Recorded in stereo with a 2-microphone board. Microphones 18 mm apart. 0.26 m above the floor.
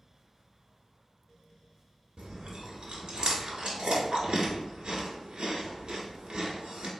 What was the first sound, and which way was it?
Chewing, 70° right (ahead or behind).